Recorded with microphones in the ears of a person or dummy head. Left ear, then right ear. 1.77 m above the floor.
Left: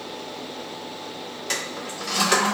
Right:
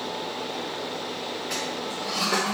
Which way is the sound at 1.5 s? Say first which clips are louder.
Left 4 dB; 90° left.